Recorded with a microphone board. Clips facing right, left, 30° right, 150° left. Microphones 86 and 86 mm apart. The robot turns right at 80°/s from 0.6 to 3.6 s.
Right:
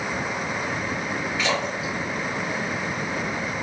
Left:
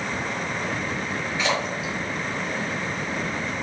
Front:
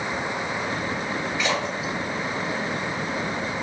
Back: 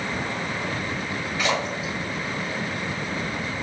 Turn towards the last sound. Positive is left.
turn(degrees=-30)